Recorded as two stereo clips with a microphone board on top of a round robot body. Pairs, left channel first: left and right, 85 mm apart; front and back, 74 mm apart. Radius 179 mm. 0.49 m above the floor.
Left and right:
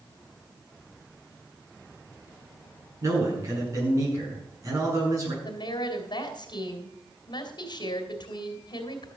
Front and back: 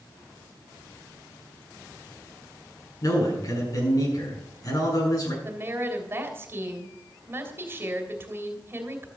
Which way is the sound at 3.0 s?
35° right.